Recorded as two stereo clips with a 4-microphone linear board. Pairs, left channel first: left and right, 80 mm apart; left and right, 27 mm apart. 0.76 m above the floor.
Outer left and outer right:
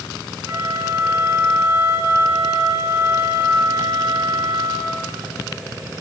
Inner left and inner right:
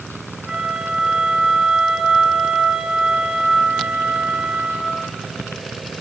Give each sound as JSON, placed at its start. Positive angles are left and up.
{"t": 0.5, "sound": "a flute", "side_deg": -30, "distance_m": 4.5}